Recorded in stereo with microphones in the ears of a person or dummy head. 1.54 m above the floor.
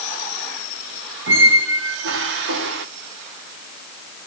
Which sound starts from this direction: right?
A squeak, at 1.3 s.